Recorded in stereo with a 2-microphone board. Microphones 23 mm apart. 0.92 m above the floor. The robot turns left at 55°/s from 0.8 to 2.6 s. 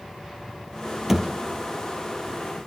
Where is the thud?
15° right (ahead or behind), 2 m; by 1.3 s centre (ahead or behind), 2 m.